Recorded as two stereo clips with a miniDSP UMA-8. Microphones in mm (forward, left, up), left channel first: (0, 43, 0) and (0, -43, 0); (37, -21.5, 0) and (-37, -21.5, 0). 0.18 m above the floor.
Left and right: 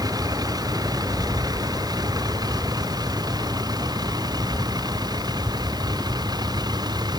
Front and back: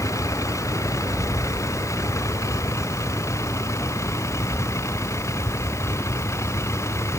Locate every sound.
0.0 s a vehicle: 45° right; by 7.2 s 50° right